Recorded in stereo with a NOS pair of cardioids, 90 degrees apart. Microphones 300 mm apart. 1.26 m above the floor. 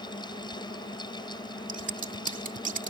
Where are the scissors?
25° right.